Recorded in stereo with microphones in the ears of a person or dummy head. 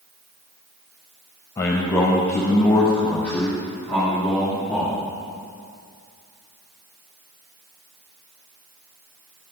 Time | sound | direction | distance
1.6 | a man speaking | 20° left (ahead or behind) | 1.0 m